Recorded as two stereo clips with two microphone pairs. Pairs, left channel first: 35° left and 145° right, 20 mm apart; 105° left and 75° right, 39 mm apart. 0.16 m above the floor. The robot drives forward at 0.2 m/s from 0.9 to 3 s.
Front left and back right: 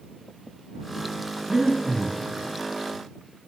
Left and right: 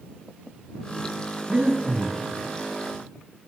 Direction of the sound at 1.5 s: 125° right.